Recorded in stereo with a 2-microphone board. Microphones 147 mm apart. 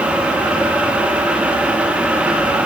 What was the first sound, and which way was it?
Only background noise.